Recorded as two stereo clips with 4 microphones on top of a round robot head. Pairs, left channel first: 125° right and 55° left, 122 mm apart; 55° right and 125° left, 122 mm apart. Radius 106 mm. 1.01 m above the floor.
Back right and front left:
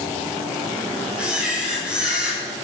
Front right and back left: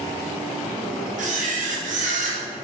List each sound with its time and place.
1.2 s a camera shutter: 140° left, 6 m